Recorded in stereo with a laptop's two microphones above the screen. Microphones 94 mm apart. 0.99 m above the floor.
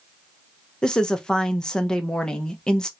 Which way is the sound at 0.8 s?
10° left (ahead or behind).